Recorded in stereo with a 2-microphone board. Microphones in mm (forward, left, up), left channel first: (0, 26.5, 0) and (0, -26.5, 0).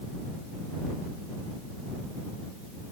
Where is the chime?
I don't hear a chime.